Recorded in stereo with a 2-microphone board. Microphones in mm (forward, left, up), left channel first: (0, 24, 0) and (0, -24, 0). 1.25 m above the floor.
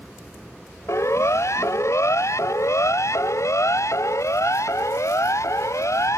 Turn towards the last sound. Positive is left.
turn(degrees=85)